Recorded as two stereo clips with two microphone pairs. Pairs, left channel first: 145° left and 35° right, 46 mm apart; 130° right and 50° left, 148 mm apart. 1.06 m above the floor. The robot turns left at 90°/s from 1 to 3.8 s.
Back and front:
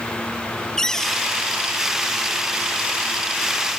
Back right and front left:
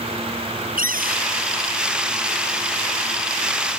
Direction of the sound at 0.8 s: 65° left.